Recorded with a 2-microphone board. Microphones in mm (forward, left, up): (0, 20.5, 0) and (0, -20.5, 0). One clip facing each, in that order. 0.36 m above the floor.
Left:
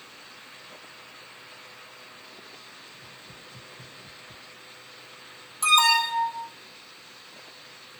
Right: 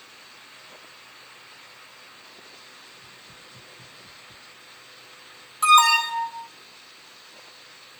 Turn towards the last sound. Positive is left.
turn(degrees=-30)  # may be behind; listen again after turning